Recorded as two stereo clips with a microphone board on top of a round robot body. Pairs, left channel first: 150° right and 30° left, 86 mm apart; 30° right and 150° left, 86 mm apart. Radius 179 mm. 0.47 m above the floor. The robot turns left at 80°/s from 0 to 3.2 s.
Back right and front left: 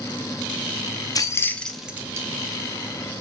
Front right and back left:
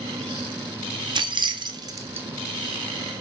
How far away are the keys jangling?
About 0.6 m.